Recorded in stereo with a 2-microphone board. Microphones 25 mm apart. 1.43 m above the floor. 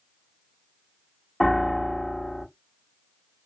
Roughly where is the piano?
Left.